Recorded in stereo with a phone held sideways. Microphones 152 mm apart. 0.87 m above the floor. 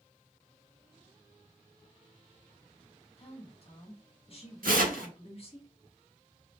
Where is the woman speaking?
45° left (ahead or behind), 1.4 m.